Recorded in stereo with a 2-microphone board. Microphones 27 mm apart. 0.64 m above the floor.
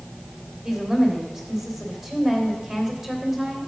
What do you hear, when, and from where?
0.6 s a woman speaking: 20° right (ahead or behind), 3 m